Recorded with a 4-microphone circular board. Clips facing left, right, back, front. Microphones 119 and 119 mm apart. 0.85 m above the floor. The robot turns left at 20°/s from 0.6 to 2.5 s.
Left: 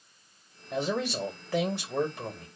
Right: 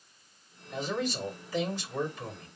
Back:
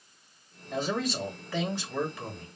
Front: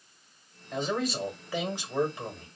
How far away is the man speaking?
About 1.5 m.